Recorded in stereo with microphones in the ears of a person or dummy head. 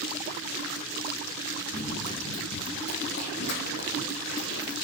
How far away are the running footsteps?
About 3.5 m.